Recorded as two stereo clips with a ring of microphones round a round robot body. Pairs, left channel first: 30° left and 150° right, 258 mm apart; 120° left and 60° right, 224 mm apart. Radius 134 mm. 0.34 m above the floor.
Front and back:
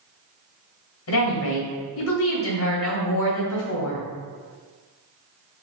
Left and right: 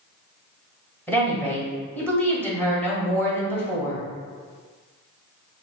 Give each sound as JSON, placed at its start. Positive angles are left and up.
{"t": 1.1, "sound": "a woman speaking", "azimuth_deg": 40, "distance_m": 1.7}